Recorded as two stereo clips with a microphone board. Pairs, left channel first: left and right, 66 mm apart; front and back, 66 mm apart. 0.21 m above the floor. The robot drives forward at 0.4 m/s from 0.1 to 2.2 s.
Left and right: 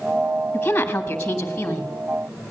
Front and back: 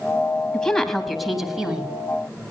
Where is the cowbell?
I don't hear a cowbell.